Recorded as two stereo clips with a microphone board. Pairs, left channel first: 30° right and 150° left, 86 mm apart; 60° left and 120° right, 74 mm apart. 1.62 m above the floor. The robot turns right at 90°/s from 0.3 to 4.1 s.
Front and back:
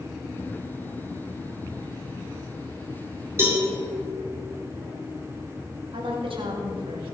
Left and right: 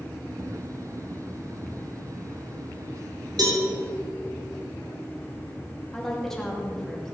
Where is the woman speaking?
145° left, 2.5 m.